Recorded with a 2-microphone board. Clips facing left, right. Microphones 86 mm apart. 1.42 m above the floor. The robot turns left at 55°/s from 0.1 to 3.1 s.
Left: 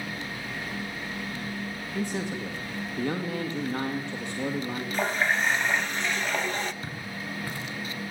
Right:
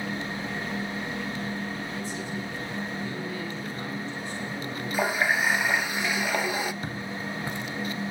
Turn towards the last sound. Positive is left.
turn(degrees=-20)  # may be behind; listen again after turning